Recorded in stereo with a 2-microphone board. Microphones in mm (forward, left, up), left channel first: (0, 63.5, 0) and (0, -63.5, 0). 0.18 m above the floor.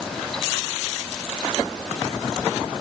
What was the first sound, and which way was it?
Only background noise.